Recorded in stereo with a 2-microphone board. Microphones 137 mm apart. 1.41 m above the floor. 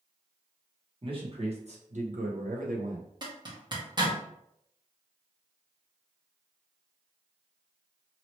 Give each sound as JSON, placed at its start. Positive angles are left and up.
{"t": 1.0, "sound": "a man speaking", "side_deg": -40, "distance_m": 1.4}
{"t": 3.2, "sound": "a zipper", "side_deg": -30, "distance_m": 0.9}